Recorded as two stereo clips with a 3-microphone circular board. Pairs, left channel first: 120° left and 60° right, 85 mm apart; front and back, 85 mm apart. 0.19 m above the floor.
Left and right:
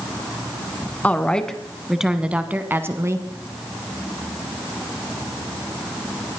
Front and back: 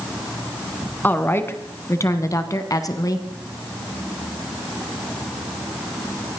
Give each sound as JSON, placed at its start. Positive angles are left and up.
{"t": 1.0, "sound": "a woman speaking", "azimuth_deg": 55, "distance_m": 1.4}